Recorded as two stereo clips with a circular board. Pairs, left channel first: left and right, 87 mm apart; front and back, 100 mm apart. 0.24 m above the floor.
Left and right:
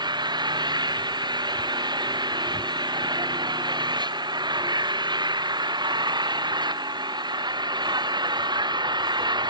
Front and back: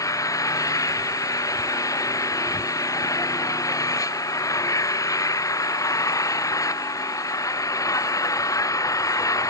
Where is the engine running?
55° right.